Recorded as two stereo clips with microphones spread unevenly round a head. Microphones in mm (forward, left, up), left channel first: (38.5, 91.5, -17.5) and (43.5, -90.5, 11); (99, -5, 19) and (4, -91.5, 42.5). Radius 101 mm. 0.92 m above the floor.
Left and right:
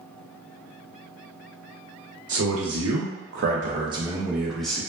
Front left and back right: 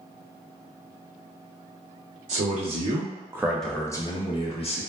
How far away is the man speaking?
About 0.8 m.